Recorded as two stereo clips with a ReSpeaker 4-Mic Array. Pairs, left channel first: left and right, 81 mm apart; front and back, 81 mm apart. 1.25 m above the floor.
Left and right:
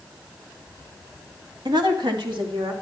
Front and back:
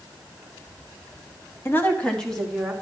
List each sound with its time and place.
1.6 s a woman speaking: 60° right, 1.6 m; by 2.7 s 90° right, 2.5 m